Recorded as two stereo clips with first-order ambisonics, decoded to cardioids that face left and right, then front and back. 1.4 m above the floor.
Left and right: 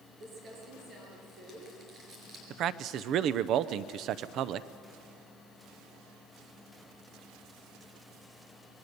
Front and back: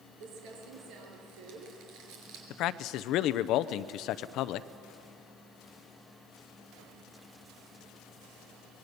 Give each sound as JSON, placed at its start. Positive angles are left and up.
{"t": 0.2, "sound": "crumpling", "azimuth_deg": -155, "distance_m": 5.0}
{"t": 2.5, "sound": "a man speaking", "azimuth_deg": -40, "distance_m": 0.7}